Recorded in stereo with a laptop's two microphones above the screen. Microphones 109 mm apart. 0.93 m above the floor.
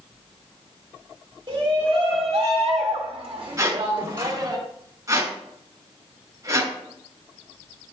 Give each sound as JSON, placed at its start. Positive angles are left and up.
{"t": 1.5, "sound": "a shout", "side_deg": -50, "distance_m": 2.5}
{"t": 3.6, "sound": "a squeak", "side_deg": -35, "distance_m": 2.5}